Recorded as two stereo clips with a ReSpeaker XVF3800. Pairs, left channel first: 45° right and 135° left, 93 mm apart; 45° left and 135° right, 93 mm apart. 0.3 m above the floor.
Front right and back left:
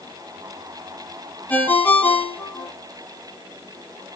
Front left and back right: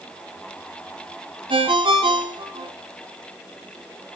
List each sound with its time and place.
1.5 s a ringtone: 115° right, 1.4 m